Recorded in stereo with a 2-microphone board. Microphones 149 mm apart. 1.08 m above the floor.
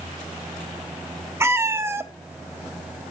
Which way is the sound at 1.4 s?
15° right (ahead or behind).